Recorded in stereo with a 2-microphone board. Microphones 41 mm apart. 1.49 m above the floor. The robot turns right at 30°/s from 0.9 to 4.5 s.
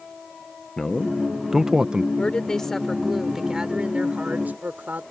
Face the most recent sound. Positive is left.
turn(degrees=-140)